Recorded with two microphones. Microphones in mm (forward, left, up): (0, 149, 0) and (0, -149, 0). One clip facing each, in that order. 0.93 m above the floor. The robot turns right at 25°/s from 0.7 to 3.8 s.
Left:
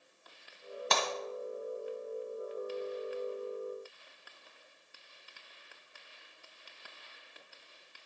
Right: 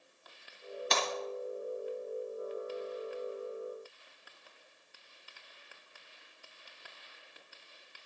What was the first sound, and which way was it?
Breaking glass, 60° left (ahead or behind).